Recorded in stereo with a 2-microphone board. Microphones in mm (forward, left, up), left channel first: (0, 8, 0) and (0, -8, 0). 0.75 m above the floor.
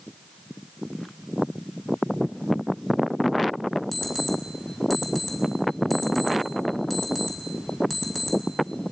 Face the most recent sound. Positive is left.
turn(degrees=-5)  # may be behind; listen again after turning